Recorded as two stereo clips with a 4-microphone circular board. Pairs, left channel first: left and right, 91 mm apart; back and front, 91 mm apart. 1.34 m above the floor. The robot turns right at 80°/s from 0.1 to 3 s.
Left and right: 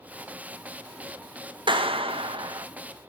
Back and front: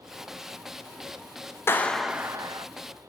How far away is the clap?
About 0.6 m.